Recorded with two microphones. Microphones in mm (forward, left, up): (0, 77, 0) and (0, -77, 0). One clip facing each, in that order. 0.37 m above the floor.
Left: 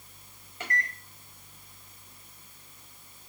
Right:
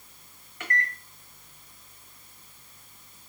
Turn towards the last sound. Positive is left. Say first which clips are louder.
# right 2 dB
turn(degrees=25)  # may be behind; listen again after turning